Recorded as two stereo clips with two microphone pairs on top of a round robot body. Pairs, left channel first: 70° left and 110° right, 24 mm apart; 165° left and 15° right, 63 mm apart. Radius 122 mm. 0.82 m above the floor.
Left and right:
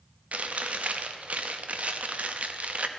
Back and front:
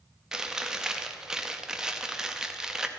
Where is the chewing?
95° right, 0.9 m.